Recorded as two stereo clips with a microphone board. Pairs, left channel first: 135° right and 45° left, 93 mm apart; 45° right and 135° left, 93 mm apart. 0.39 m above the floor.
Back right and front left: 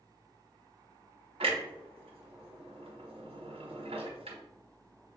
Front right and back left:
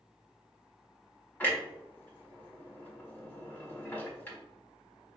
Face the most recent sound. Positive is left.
turn(degrees=30)